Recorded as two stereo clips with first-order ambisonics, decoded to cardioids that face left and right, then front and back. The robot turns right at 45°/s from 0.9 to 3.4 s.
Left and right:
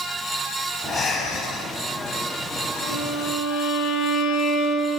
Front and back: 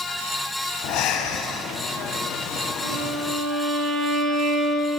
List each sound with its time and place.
0.8 s breathing: 15° left, 1.9 m; by 1.7 s 50° left, 1.9 m
2.8 s a violin: 105° left, 4 m; by 5.0 s 135° left, 4 m